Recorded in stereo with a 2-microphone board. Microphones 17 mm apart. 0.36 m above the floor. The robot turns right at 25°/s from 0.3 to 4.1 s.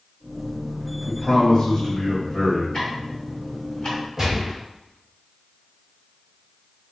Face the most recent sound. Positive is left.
turn(degrees=-30)  # may be behind; listen again after turning